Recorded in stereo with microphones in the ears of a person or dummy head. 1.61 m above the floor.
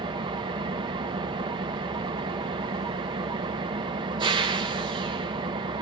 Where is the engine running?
30° right (ahead or behind), 0.8 m.